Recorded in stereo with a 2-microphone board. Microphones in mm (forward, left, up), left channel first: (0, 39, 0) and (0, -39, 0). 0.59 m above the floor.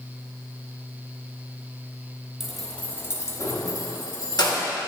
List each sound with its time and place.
2.4 s keys jangling: 5° right (ahead or behind), 0.8 m; by 4.7 s 65° left (ahead or behind), 1.4 m